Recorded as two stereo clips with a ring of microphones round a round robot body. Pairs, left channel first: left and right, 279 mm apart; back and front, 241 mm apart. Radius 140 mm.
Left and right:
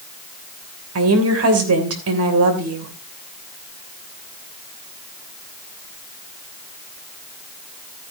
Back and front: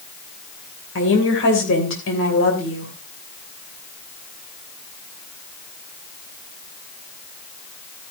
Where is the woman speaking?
130° right, 3 m.